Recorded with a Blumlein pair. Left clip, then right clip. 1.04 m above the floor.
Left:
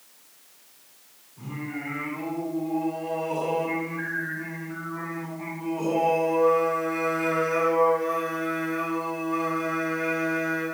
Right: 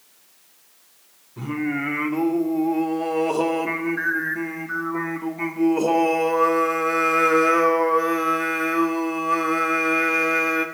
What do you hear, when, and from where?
1.4 s singing: 50° right, 2 m